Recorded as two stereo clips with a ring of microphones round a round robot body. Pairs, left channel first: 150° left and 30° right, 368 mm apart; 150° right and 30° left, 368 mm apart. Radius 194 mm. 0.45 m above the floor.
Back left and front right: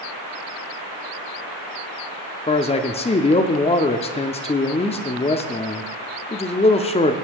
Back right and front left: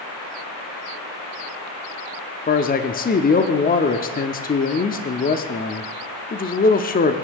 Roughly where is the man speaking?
Behind.